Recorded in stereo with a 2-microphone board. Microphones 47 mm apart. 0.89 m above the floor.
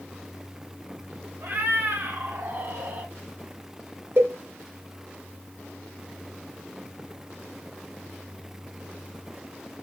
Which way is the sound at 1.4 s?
60° right (ahead or behind).